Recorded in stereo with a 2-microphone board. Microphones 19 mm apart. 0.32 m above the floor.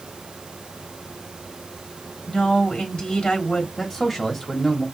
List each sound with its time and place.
2.3 s a woman speaking: 45° left (ahead or behind), 3.5 m
3.8 s a man speaking: 20° left (ahead or behind), 1.5 m